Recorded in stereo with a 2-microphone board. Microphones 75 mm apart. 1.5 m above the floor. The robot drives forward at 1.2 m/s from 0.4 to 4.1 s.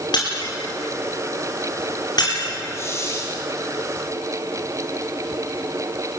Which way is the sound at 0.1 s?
80° left.